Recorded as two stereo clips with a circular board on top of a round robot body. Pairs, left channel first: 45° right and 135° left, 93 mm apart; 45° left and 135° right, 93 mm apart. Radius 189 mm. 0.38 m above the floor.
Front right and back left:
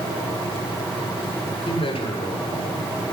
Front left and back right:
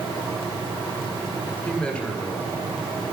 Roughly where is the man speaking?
Ahead right.